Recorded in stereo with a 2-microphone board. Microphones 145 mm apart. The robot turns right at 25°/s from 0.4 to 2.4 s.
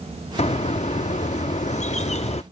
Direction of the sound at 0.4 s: 65° left.